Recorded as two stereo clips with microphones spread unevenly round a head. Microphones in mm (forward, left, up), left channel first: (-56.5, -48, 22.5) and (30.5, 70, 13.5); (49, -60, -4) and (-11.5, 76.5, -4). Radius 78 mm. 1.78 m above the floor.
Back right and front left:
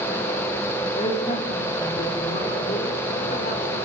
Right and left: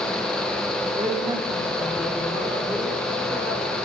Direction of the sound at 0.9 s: Straight behind.